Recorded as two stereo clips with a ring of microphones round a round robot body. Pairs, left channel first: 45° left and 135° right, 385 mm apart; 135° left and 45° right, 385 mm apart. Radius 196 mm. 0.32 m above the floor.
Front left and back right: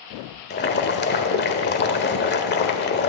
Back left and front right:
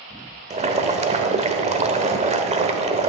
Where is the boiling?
10° left, 1.1 m.